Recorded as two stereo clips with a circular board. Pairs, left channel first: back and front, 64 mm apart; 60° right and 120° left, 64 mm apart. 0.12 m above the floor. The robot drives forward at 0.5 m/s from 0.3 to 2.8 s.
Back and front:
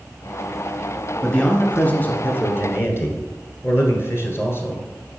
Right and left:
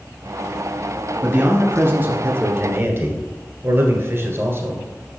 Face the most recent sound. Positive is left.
turn(degrees=150)